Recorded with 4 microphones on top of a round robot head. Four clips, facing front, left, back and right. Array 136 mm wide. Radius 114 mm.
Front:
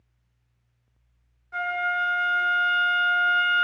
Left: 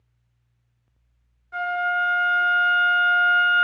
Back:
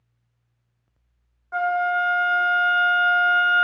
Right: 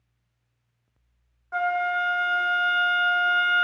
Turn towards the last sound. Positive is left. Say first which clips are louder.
# even, back 5 dB
turn(degrees=-145)